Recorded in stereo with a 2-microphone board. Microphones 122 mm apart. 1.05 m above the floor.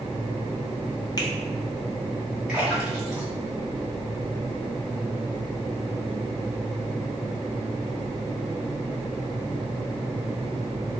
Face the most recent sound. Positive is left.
turn(degrees=-5)  # may be behind; listen again after turning